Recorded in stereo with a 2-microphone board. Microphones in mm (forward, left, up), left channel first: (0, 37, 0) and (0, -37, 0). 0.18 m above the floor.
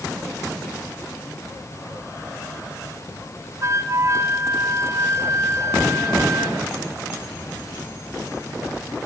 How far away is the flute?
About 1.6 m.